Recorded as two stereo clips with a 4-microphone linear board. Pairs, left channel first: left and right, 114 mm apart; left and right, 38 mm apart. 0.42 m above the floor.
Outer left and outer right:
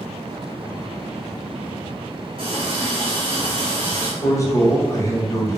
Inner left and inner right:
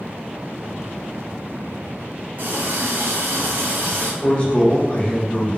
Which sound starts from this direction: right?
A running tap, at 2.4 s.